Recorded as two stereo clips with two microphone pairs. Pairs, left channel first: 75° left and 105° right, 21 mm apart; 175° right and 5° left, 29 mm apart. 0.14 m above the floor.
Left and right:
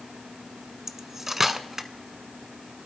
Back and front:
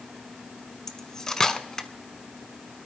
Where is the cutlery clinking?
140° right, 0.8 m.